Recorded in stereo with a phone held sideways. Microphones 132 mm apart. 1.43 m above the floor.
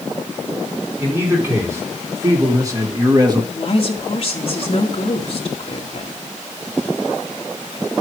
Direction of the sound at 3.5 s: 45° left (ahead or behind).